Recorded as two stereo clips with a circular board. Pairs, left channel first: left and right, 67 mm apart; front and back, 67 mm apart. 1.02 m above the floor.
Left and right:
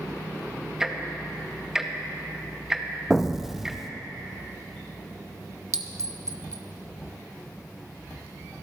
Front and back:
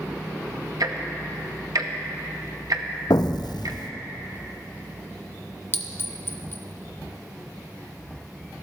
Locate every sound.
0.8 s ticking: 170° right, 0.8 m
3.1 s an explosion: 5° right, 0.6 m
5.7 s a clink: 55° right, 0.6 m